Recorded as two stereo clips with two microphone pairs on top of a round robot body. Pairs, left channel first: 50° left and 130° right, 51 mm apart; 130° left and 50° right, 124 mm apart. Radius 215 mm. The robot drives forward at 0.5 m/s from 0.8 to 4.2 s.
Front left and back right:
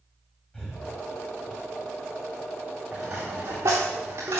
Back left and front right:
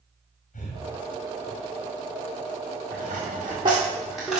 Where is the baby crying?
No baby crying in this recording.